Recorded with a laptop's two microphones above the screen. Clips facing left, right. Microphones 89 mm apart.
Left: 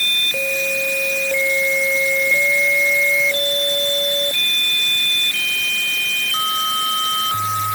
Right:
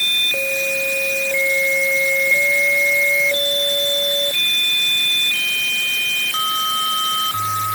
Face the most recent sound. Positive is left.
No sound to turn to.